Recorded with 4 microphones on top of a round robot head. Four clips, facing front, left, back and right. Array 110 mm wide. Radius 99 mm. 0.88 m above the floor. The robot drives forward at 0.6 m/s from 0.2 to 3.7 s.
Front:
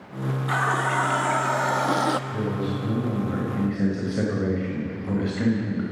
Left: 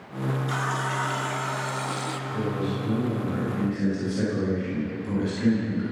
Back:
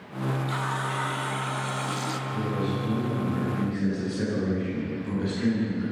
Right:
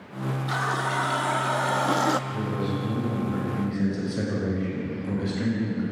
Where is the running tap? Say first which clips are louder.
Right 5 dB, front 6 dB; 20° right, 1.6 m; by 2.2 s 50° right, 0.7 m.